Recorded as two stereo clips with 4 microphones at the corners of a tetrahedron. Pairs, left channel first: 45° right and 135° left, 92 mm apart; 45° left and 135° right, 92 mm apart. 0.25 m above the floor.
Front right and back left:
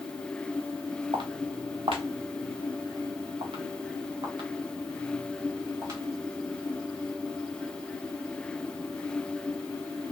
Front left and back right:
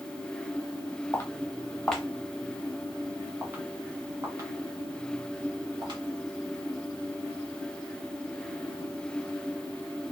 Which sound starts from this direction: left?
Footsteps, at 1.1 s.